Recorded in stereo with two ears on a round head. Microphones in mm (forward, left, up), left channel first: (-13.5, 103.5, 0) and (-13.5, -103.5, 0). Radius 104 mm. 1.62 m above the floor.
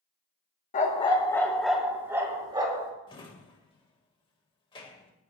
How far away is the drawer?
About 1.5 m.